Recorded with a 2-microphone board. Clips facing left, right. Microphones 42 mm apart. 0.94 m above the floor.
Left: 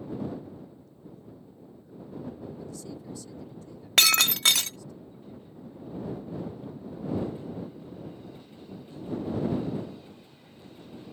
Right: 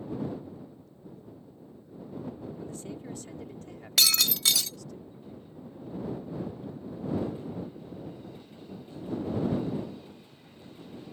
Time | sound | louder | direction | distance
2.6 | a man speaking | right 1 dB | 35° right (ahead or behind) | ?
4.0 | breaking glass | left 4 dB | 50° left (ahead or behind) | ?